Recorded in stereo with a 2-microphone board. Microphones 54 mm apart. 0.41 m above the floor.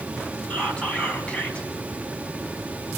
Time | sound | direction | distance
0.5 | whispering | 20° left (ahead or behind) | 4 m